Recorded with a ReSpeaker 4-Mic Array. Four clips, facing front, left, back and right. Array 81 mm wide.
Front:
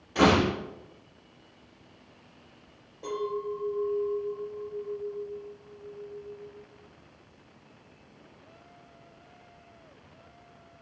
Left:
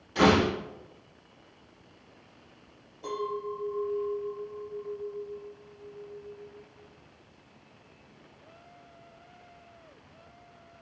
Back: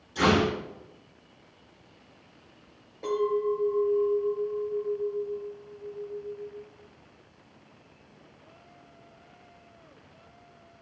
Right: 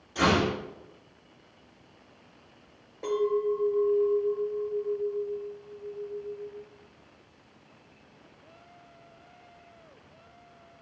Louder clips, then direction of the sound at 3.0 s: Right 7 dB, back 6 dB; 115° right.